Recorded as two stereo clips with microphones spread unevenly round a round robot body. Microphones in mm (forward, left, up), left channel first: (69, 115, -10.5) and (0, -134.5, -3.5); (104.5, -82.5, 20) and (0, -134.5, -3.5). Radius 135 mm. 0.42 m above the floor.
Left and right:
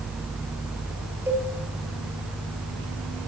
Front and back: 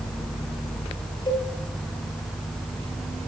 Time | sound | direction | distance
1.3 | a cowbell | 25° right | 8.5 m